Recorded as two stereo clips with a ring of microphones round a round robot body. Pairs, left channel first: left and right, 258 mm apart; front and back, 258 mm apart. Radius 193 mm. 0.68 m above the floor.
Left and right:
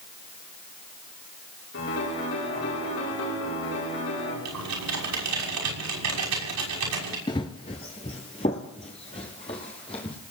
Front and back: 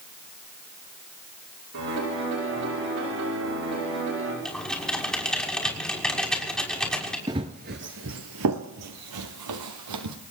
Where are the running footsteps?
130° left, 0.6 m; by 10.2 s 165° left, 1.9 m.